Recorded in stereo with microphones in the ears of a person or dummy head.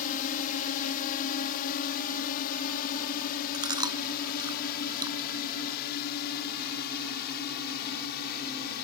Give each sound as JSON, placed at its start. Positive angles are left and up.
{"t": 0.0, "sound": "a drone", "side_deg": 45}
{"t": 3.5, "sound": "chewing", "side_deg": -25}